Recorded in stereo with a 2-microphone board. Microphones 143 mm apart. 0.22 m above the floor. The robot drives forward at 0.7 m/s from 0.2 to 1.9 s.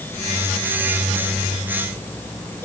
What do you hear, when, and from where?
Only background noise.